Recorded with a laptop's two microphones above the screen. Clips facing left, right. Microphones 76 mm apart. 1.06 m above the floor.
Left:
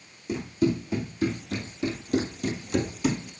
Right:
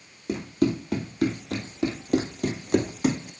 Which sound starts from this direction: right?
Running footsteps, at 0.3 s.